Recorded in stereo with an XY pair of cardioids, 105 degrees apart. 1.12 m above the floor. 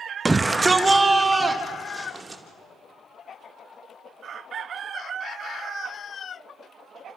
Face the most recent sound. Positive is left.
turn(degrees=-20)